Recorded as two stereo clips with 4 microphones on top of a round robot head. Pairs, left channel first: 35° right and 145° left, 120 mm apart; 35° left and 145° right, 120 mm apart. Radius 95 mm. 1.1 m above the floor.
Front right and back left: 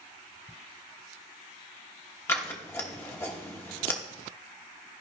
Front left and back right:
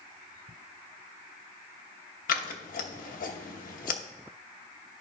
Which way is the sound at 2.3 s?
35° left.